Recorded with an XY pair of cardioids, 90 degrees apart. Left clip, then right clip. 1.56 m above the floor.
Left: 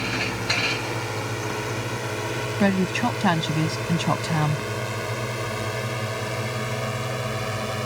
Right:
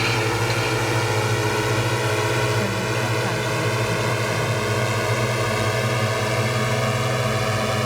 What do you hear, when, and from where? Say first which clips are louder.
0.0 s a drone: right 5 dB; 60° right; by 7.9 s 45° right
2.6 s a woman speaking: even; 70° left